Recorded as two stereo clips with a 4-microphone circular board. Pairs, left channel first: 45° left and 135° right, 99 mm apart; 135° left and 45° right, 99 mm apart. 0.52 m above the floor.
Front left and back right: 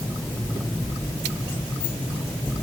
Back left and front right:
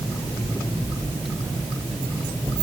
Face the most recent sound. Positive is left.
No sound to turn to.